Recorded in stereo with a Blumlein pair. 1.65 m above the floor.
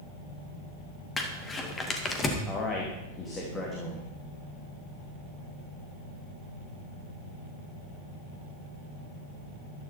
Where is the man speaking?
20° left, 3 m.